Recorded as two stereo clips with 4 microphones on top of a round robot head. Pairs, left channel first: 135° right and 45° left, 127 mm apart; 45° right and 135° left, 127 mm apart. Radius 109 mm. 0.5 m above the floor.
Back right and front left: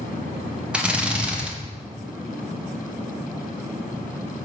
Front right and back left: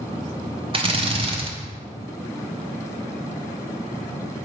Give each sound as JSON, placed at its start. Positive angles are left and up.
{"t": 0.7, "sound": "a drill", "azimuth_deg": 125, "distance_m": 1.4}